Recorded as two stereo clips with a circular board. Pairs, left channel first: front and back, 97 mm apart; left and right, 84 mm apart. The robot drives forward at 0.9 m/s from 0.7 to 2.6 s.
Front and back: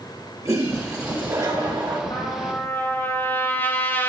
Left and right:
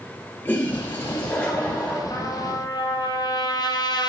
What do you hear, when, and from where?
0.5 s a toilet flushing: 145° left, 2 m; by 2.0 s 160° left, 3 m
2.1 s a trumpet: 50° left, 1.4 m; by 4.1 s 65° left, 1.2 m